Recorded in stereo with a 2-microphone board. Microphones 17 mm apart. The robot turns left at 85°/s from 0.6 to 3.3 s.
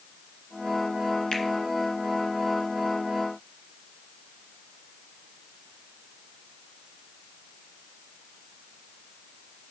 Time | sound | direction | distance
1.3 | a finger snap | 55° left (ahead or behind) | 2 m